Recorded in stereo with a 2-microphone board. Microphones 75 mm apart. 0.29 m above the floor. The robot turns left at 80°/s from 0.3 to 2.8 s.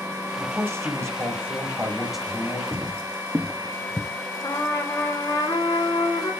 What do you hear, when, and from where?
0.4 s a man speaking: 35° right, 1.7 m; by 2.6 s 145° left, 1.7 m
2.7 s footsteps: 35° right (ahead or behind), 1.1 m; by 4.1 s 10° left (ahead or behind), 0.6 m
4.4 s a trumpet: 55° left (ahead or behind), 3 m